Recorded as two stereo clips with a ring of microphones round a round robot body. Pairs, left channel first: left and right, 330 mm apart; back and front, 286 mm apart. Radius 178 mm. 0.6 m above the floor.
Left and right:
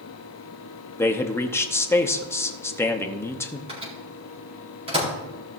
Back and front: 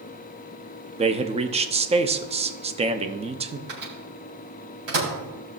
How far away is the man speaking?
About 0.8 m.